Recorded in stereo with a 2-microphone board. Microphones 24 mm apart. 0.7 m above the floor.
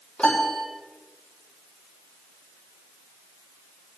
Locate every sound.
0.2 s a piano: 60° left (ahead or behind), 5 m